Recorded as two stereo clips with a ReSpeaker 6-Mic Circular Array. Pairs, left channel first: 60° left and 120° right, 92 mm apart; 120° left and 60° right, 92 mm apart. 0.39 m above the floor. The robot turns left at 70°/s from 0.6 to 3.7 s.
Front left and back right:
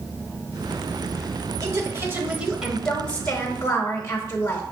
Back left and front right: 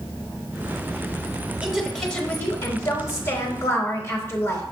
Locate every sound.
1.6 s a woman speaking: 130° right, 0.9 m; by 4.6 s 85° left, 0.9 m